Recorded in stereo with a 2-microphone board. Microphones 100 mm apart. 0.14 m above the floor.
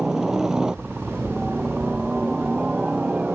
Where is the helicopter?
5° right (ahead or behind); by 3.4 s 10° right (ahead or behind).